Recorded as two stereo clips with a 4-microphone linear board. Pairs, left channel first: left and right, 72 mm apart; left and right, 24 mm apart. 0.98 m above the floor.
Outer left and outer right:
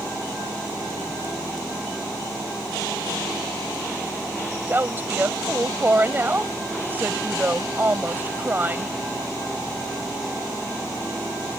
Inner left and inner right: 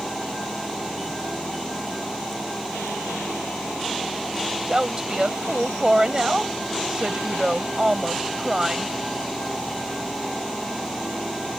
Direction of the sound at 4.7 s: 25° right (ahead or behind).